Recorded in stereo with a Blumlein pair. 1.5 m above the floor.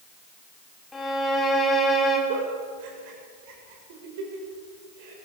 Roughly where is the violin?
Ahead.